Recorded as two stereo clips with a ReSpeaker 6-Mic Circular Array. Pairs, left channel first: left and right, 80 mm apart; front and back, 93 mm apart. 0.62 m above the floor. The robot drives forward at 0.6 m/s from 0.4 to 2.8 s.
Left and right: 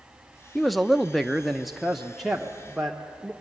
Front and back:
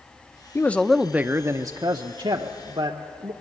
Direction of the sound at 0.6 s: Straight ahead.